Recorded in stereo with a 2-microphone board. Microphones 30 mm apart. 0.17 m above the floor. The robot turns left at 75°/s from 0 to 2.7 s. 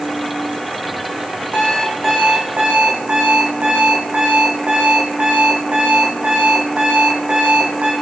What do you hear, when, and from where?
1.5 s an alarm clock: 40° left, 2.5 m; by 7.9 s 50° right, 2.5 m